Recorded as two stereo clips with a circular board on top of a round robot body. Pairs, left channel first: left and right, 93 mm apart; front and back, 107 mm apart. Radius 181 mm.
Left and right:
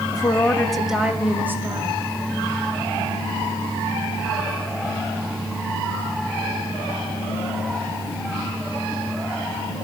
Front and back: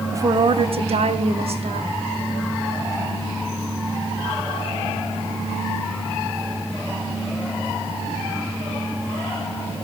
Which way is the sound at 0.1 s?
125° left.